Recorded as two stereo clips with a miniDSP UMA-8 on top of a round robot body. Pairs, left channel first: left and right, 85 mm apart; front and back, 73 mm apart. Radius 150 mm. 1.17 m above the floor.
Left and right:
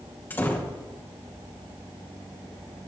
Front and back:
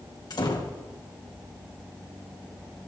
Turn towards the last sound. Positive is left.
turn(degrees=25)